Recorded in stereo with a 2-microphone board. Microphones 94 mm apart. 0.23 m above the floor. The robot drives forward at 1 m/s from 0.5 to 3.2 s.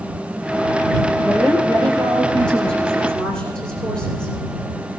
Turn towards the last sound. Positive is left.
turn(degrees=10)  # may be behind; listen again after turning